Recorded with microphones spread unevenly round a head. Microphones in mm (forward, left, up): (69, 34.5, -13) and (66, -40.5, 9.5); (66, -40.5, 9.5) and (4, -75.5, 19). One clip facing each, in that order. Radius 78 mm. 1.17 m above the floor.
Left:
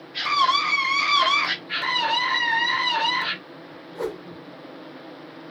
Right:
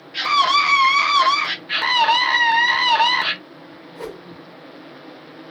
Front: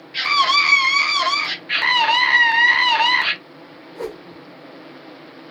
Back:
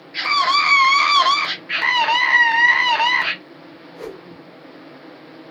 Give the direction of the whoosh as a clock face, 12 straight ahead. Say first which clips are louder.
Left 4 dB, front 4 dB; 11 o'clock.